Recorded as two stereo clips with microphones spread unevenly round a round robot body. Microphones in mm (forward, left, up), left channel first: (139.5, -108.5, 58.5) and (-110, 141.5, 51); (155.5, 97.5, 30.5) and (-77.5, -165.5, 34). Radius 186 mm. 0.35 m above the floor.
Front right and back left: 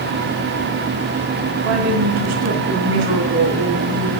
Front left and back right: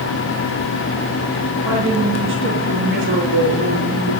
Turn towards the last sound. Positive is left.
turn(degrees=170)